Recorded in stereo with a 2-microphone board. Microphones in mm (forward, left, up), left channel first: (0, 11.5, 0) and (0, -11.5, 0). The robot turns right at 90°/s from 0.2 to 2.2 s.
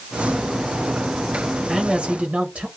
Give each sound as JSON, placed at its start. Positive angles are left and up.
{"t": 1.7, "sound": "a man speaking", "azimuth_deg": -150, "distance_m": 1.3}